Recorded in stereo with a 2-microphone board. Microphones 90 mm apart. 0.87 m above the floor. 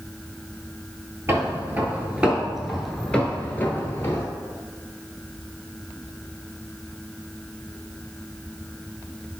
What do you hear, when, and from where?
1.3 s footsteps: 30° right (ahead or behind), 1.1 m; by 4.2 s 30° left (ahead or behind), 1.1 m